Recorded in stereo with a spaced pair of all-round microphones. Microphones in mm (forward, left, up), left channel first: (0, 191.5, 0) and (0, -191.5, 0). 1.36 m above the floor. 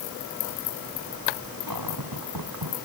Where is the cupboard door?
65° right (ahead or behind).